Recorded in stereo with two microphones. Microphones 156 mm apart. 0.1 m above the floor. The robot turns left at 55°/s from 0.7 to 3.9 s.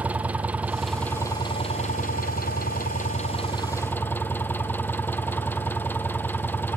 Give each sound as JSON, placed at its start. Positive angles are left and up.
{"t": 0.0, "sound": "an engine running", "azimuth_deg": -170, "distance_m": 1.3}